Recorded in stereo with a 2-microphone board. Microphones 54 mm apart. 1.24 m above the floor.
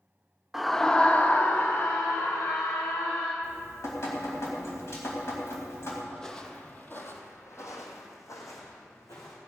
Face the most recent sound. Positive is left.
turn(degrees=70)  # may be behind; listen again after turning